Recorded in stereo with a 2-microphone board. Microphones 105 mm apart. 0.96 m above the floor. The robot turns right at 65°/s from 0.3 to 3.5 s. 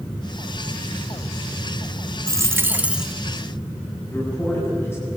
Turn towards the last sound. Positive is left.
turn(degrees=25)  # may be behind; listen again after turning